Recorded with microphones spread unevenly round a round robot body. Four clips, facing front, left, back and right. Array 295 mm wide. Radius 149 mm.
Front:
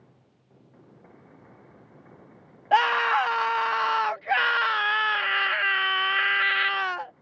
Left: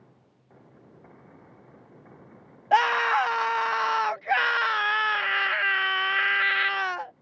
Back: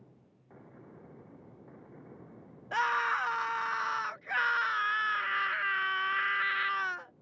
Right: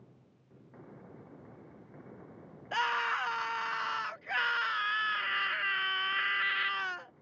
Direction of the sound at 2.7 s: 40° left.